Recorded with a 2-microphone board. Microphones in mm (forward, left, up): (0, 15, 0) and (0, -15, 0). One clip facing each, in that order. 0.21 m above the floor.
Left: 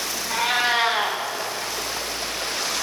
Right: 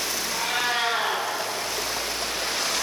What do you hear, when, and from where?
0.3 s a cat meowing: 40° left (ahead or behind), 7 m